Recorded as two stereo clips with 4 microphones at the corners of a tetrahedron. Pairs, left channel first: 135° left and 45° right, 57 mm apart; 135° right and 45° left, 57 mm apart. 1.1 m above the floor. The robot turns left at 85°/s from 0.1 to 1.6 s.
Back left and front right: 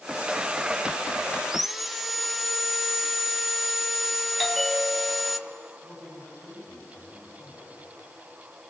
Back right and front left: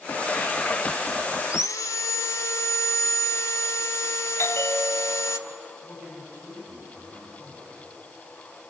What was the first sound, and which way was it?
Sawing, 120° right.